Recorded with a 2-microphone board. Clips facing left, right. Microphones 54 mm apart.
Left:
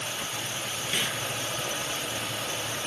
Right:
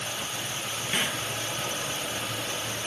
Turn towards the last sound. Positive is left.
turn(degrees=-15)  # may be behind; listen again after turning